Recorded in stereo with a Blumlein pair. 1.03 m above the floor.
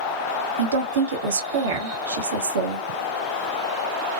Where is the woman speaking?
65° right, 0.9 m.